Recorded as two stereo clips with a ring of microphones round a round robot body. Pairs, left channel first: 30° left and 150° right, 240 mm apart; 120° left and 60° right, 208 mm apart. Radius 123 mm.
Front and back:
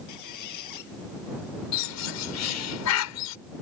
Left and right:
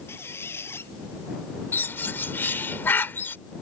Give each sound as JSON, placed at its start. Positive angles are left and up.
{"t": 0.1, "sound": "a squeak", "azimuth_deg": 40}
{"t": 1.7, "sound": "a bird", "azimuth_deg": 40}